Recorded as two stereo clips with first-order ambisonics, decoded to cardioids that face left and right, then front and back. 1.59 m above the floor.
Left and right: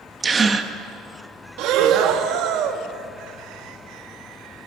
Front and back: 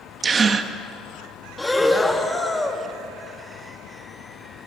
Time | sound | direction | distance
0.2 | a gasp | 140° right | 1.0 m
1.6 | breathing | 85° right | 1.4 m